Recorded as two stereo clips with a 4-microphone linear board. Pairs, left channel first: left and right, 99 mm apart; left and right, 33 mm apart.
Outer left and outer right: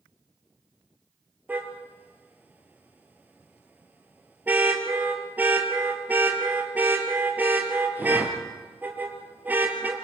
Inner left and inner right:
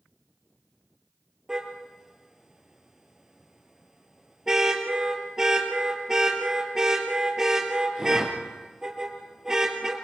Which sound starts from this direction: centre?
A car horn, at 1.5 s.